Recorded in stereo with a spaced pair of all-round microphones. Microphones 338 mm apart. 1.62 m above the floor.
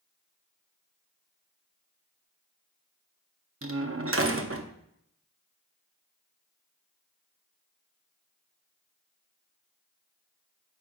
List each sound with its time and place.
3.6 s a door slam: 40° right (ahead or behind), 0.7 m